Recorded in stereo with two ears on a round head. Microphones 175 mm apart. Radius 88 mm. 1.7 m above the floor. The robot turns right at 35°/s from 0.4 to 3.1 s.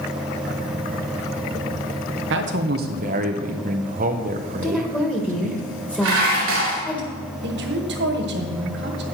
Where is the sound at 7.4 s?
55° right (ahead or behind), 1.4 m.